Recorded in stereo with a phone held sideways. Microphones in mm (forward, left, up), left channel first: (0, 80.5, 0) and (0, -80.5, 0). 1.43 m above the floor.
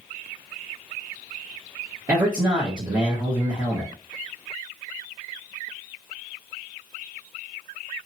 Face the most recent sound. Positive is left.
turn(degrees=-25)  # may be behind; listen again after turning